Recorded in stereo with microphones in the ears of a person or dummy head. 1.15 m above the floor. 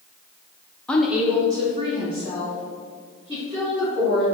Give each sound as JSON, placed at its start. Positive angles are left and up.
{"t": 0.9, "sound": "a woman speaking", "side_deg": 5, "distance_m": 0.6}